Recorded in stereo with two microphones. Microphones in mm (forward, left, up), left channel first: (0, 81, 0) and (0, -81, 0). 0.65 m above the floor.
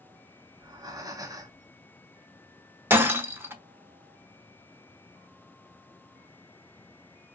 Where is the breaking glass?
15° right (ahead or behind), 0.7 m.